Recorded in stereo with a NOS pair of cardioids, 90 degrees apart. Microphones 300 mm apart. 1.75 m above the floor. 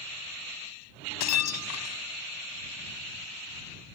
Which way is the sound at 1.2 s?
70° left.